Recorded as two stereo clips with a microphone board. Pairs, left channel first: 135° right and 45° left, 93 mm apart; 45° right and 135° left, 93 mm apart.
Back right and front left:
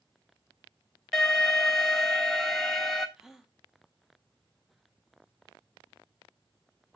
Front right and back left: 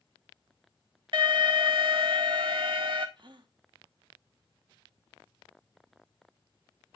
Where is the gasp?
130° left, 0.8 m.